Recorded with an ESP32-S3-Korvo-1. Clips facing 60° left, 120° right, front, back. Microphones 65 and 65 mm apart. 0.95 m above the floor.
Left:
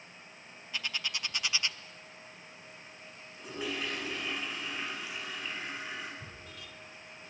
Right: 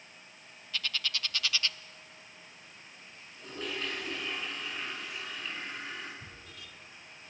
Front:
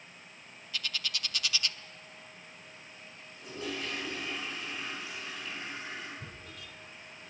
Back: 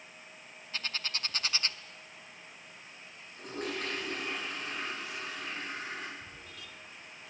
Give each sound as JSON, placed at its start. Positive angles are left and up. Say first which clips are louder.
{"t": 0.7, "sound": "a bird", "louder": "right 1 dB, even", "azimuth_deg": 130, "distance_m": 0.6}
{"t": 3.4, "sound": "a toilet flushing", "louder": "left 1 dB, back 1 dB", "azimuth_deg": 140, "distance_m": 7.5}
{"t": 6.2, "sound": "tearing paper", "louder": "left 2 dB, front 1 dB", "azimuth_deg": -35, "distance_m": 5.0}